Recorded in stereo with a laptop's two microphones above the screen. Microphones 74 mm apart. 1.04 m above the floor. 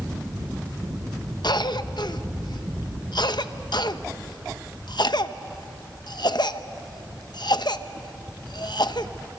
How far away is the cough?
About 0.9 m.